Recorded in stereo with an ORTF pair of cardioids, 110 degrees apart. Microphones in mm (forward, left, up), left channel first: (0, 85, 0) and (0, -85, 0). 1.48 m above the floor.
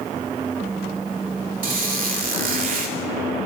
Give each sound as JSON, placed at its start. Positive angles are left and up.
{"t": 1.6, "sound": "a squeak", "azimuth_deg": -55, "distance_m": 2.5}